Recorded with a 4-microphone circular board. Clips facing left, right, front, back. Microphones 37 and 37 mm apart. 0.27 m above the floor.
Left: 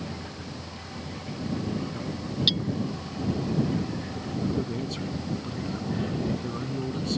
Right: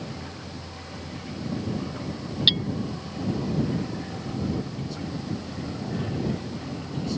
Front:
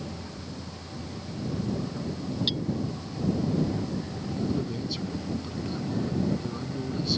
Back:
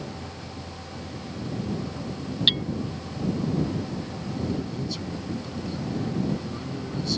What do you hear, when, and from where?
2.5 s hammering: 145° right
4.4 s a man speaking: 80° left